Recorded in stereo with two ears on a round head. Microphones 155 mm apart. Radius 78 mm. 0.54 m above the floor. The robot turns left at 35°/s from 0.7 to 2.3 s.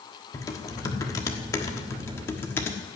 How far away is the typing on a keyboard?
About 1.3 m.